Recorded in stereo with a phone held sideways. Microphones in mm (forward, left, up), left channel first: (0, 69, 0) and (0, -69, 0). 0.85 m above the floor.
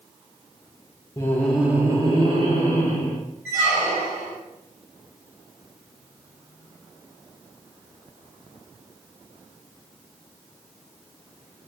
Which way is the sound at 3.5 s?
20° right (ahead or behind).